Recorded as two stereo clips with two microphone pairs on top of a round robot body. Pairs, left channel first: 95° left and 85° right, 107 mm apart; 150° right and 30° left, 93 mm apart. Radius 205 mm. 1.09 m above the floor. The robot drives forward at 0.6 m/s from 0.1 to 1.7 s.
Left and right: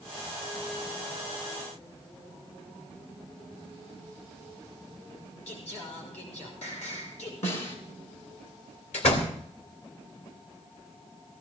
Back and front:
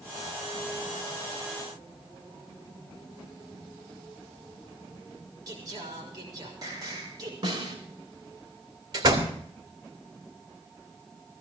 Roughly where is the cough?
I don't hear a cough.